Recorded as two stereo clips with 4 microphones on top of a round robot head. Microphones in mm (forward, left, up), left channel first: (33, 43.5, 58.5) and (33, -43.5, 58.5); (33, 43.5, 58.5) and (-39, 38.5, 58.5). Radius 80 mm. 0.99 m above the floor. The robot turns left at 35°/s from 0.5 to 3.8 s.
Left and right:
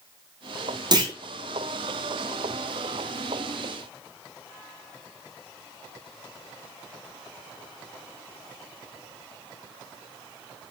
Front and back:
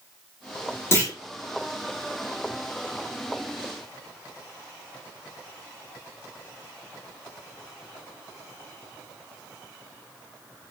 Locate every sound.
0.9 s a clunk: 55° right, 2.5 m; by 1.1 s 60° right, 2.5 m